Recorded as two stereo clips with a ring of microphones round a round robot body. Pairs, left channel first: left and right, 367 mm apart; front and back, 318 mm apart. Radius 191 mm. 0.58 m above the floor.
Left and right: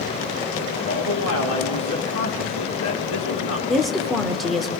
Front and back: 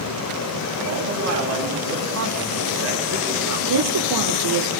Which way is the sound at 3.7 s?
Straight behind.